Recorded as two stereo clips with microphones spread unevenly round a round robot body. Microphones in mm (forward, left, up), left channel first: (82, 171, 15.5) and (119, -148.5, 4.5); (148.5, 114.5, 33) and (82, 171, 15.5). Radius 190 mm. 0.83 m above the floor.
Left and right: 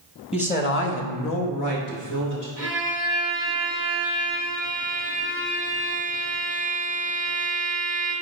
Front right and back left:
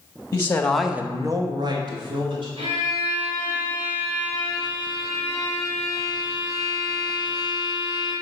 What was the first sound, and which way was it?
A man speaking, 25° left.